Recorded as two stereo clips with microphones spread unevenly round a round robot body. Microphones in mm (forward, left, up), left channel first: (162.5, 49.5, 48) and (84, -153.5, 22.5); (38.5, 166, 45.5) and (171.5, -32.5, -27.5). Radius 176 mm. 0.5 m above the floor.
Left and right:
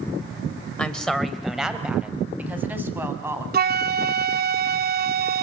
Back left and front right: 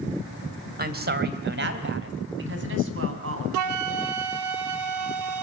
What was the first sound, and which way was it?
A woman speaking, 20° right.